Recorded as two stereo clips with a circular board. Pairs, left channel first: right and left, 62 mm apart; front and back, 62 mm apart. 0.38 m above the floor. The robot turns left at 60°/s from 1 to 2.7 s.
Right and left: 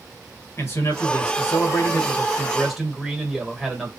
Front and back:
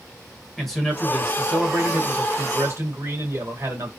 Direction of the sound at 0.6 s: 85° right.